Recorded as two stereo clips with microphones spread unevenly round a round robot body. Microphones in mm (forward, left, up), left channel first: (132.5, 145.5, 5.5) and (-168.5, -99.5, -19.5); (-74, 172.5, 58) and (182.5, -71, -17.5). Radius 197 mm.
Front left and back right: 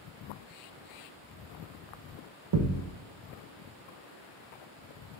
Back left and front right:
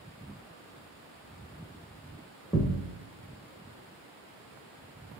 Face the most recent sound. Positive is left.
turn(degrees=-155)